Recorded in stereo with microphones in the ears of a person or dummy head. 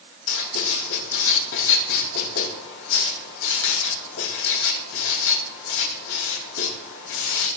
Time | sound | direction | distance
0.3 | writing | 70° left (ahead or behind) | 3.5 m